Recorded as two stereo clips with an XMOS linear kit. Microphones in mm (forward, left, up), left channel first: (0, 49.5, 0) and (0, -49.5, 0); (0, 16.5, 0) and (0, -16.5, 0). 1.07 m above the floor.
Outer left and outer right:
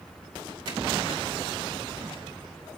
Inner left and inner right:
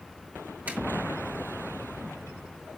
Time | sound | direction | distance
0.7 | a zipper | 65° right (ahead or behind) | 3 m